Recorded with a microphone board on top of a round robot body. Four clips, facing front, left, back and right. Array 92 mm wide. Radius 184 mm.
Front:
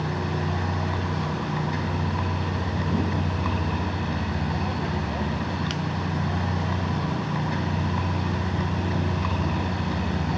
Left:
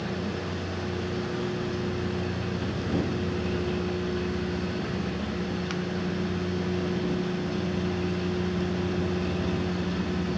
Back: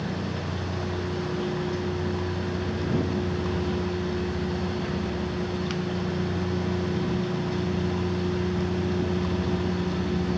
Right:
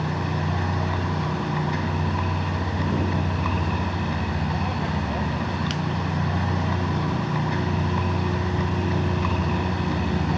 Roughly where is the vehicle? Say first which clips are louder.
Right 4 dB, front 3 dB; ahead right.